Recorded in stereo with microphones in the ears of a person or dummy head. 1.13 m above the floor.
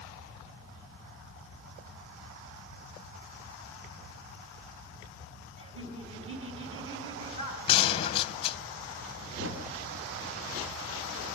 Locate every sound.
5.6 s laughter: 35° right (ahead or behind), 9 m; by 7.6 s 30° right (ahead or behind), 10 m
7.7 s a gunshot: 30° left (ahead or behind), 0.9 m
9.4 s a thud: 60° right (ahead or behind), 4 m